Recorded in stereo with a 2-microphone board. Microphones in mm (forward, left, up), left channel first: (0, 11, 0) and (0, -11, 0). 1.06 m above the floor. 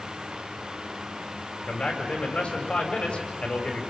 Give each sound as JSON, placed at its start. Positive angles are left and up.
{"t": 1.7, "sound": "a man speaking", "side_deg": 55, "distance_m": 6.0}